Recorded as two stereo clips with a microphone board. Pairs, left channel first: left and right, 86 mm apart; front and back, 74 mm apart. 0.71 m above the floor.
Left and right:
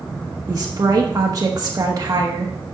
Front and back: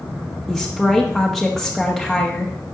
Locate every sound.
0.5 s a woman speaking: 90° right, 1.1 m